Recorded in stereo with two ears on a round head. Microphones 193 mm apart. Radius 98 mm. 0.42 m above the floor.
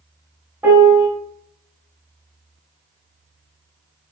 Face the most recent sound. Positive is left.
turn(degrees=-10)  # may be behind; listen again after turning